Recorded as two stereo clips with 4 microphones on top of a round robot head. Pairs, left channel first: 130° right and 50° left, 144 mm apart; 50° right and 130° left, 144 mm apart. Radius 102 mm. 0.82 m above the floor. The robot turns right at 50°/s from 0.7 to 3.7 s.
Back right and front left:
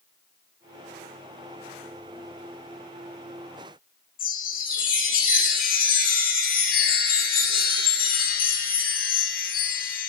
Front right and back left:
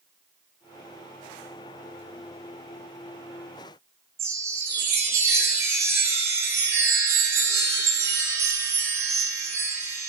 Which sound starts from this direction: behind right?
A chime, at 4.2 s.